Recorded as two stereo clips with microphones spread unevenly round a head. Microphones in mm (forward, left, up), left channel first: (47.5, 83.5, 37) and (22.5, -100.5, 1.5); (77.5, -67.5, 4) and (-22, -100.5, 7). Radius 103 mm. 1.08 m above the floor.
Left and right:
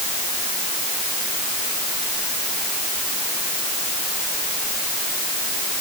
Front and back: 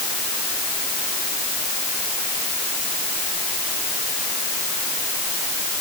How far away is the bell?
No bell in this recording.